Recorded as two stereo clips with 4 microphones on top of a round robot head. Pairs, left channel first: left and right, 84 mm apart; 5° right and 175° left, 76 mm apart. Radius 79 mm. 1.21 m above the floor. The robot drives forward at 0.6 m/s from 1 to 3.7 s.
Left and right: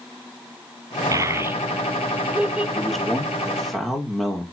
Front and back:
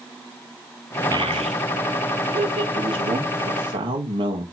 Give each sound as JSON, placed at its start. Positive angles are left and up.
{"t": 1.1, "sound": "a child speaking", "azimuth_deg": -125, "distance_m": 0.5}
{"t": 2.8, "sound": "a man speaking", "azimuth_deg": 175, "distance_m": 4.0}